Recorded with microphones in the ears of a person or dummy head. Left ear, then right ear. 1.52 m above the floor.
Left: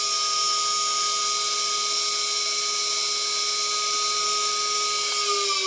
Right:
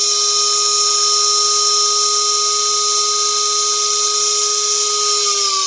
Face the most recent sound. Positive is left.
turn(degrees=-65)  # may be behind; listen again after turning